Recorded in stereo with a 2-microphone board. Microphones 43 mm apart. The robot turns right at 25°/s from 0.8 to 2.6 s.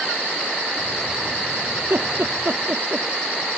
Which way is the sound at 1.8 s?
55° right (ahead or behind).